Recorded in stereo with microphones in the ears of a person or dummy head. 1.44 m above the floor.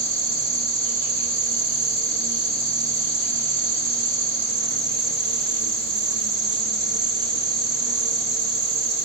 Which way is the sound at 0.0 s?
60° right (ahead or behind).